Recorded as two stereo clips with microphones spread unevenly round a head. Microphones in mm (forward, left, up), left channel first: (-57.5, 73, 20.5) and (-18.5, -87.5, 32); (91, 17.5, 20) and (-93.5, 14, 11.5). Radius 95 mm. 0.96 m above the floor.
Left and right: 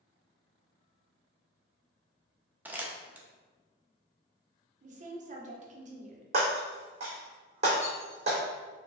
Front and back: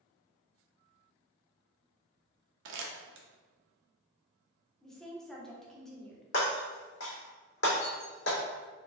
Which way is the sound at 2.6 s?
160° right.